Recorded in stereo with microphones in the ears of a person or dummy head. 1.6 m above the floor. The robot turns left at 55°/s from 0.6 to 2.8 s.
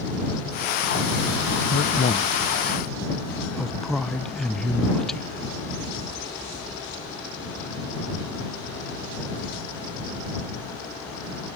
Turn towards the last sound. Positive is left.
turn(degrees=0)  # may be behind; listen again after turning